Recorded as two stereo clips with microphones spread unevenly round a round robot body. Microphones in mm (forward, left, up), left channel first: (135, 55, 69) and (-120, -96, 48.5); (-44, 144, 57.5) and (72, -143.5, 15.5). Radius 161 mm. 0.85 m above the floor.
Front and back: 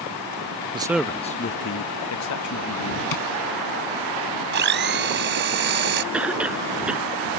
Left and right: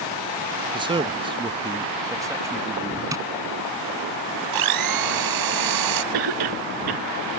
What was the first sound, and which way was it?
A man speaking, 110° right.